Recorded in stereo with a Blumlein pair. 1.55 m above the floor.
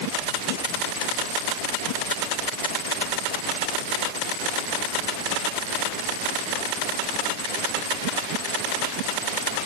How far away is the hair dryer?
No hair dryer in this recording.